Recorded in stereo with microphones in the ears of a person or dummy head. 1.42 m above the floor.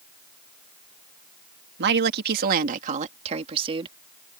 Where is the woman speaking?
65° right (ahead or behind); by 4.0 s 30° right (ahead or behind).